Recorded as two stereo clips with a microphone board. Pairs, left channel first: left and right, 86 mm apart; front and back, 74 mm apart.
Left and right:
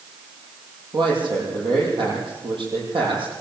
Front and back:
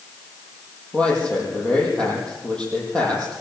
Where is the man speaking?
75° right, 7.5 m.